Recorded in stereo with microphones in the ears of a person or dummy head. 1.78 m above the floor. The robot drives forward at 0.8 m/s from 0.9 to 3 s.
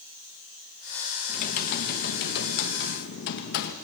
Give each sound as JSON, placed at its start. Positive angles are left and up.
{"t": 1.3, "sound": "typing on a keyboard", "side_deg": 50, "distance_m": 1.7}